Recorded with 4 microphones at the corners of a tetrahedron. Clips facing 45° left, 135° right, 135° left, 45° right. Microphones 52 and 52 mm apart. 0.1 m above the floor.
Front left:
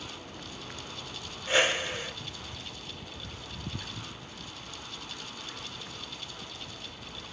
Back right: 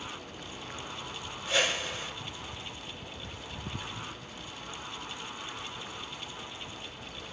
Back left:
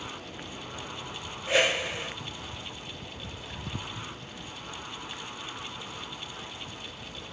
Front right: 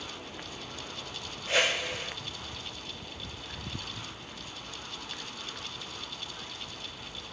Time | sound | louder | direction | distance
1.5 | a whoosh | front left 3 dB, back left 3 dB | 70° left | 1.5 m